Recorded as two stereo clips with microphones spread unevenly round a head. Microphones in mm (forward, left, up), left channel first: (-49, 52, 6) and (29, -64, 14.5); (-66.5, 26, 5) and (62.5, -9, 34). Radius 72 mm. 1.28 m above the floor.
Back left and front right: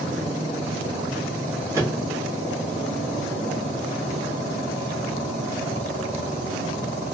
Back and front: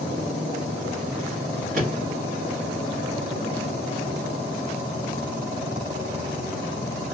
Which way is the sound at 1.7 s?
15° left.